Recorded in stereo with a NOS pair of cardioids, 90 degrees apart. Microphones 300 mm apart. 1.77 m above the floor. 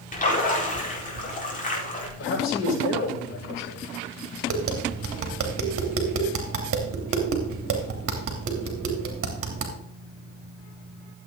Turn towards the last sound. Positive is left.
turn(degrees=-50)